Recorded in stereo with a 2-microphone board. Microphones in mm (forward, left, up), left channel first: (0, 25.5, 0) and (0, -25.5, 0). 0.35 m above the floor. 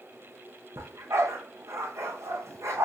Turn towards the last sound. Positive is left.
turn(degrees=-75)  # may be behind; listen again after turning